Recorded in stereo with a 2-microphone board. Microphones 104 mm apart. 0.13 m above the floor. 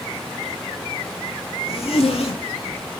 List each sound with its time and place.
1.7 s a zipper: 70° left (ahead or behind), 2 m